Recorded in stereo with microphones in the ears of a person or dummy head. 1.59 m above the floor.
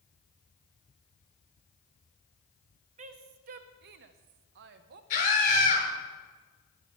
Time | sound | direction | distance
3.0 | a woman speaking | 40° right (ahead or behind) | 1.0 m
5.1 | a scream | 45° left (ahead or behind) | 5 m